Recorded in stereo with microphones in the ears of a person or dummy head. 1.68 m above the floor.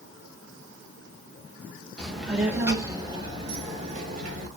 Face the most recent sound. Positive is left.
turn(degrees=-40)  # may be behind; listen again after turning